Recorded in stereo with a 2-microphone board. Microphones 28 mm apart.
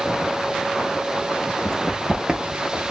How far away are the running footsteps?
About 0.9 m.